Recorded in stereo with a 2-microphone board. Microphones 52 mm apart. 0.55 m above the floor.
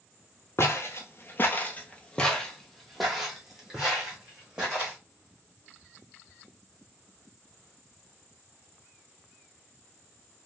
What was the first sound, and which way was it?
Footsteps, 55° left (ahead or behind).